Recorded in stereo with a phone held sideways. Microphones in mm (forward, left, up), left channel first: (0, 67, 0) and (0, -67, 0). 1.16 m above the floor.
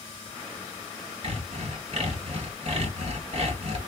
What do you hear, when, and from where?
1.2 s sawing: 50° right (ahead or behind), 1.8 m